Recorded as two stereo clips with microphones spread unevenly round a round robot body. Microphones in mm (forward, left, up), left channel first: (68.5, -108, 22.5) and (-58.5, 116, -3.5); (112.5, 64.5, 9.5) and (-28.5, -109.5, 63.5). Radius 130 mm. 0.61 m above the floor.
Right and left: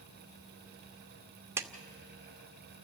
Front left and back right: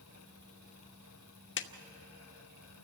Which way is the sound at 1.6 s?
40° left.